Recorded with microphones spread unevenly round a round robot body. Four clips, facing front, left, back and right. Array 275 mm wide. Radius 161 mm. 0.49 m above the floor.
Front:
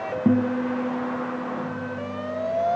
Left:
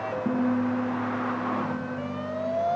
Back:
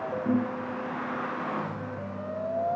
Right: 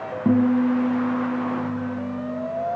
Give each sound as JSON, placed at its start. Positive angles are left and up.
{"t": 0.2, "sound": "a guitar", "azimuth_deg": -30, "distance_m": 5.0}